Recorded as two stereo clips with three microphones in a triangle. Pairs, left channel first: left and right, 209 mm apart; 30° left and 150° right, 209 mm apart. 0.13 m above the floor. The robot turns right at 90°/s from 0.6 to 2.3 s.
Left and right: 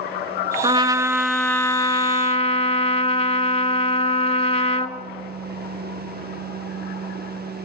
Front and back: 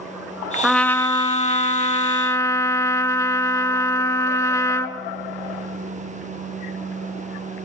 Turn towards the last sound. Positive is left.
turn(degrees=90)